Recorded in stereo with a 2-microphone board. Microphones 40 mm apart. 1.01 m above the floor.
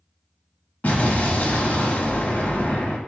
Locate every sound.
0.8 s an explosion: 40° left (ahead or behind), 0.9 m